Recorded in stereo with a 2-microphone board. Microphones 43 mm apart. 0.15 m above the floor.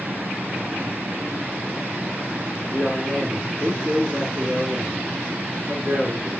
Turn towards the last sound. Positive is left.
turn(degrees=-30)  # may be behind; listen again after turning